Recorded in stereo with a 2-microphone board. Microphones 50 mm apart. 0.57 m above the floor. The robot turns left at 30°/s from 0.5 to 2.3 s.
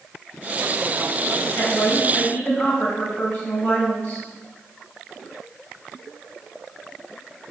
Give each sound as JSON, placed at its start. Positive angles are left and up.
{"t": 1.6, "sound": "a woman speaking", "side_deg": 50, "distance_m": 4.5}